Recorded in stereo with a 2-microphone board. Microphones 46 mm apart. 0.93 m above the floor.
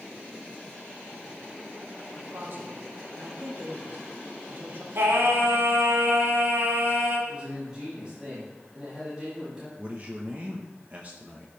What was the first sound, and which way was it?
A man speaking, 50° right (ahead or behind).